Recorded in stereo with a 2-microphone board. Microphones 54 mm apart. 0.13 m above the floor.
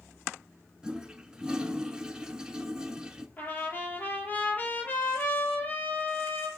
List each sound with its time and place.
0.8 s a toilet flushing: 15° right (ahead or behind), 0.8 m
3.4 s a trumpet: 30° left (ahead or behind), 3 m